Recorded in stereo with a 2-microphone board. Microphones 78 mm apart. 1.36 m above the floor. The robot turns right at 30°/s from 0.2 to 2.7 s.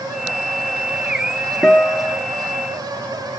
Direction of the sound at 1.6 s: 5° left (ahead or behind).